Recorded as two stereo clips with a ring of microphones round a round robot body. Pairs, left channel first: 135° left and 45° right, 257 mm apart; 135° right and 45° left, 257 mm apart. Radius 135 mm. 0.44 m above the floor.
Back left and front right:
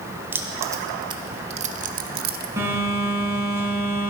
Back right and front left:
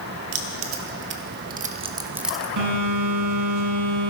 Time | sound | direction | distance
0.3 | keys jangling | 35° left | 1.5 m
2.6 | a phone buzzing | 35° left | 4 m